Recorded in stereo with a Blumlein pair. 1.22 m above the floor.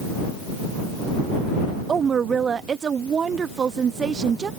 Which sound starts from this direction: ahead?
A woman speaking, at 1.9 s.